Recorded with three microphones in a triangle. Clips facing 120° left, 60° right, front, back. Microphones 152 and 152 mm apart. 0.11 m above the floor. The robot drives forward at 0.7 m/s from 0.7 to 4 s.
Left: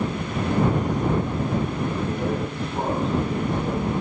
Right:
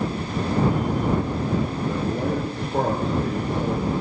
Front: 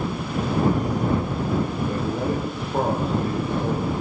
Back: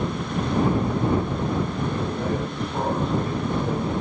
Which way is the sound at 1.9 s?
50° right.